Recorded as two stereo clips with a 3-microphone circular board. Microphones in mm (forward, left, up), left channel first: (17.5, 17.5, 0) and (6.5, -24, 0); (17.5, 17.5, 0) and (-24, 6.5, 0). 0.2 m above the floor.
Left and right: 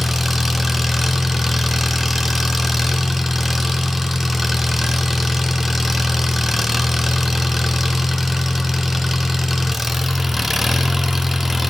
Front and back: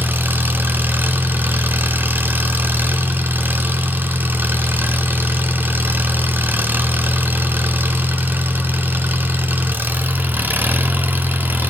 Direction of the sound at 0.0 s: 170° left.